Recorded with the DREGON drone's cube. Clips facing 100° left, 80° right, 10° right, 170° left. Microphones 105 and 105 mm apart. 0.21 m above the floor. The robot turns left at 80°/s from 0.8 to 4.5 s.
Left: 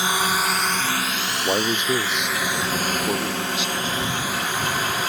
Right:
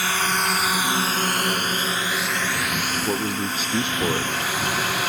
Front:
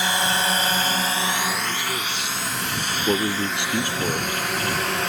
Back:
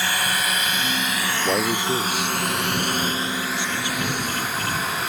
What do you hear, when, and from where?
0.0 s a drone: 45° left; by 5.1 s straight ahead
1.4 s a man speaking: 145° left; by 4.4 s 95° right